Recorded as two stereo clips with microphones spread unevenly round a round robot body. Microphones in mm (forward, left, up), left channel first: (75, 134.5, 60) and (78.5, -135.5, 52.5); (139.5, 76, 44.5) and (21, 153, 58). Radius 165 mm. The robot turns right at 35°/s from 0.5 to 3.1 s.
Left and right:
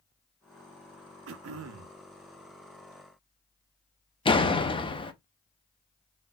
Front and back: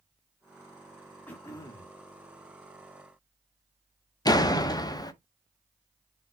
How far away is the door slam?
About 0.8 m.